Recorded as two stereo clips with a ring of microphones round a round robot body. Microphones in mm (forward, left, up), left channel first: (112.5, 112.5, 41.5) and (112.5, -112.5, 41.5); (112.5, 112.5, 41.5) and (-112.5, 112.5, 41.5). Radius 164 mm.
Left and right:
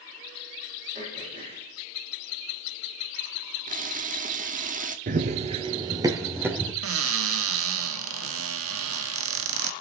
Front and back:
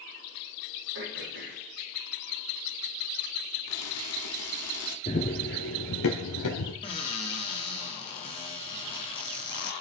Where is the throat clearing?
155° right, 5.5 m.